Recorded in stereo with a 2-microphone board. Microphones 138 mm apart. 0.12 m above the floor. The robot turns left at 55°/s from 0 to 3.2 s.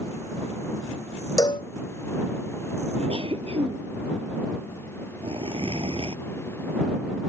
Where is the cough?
50° right (ahead or behind); by 6.2 s 45° right (ahead or behind).